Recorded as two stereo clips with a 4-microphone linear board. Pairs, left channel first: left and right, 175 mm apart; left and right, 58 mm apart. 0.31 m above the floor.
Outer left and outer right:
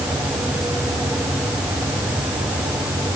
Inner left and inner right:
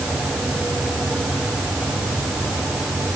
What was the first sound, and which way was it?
Only background noise.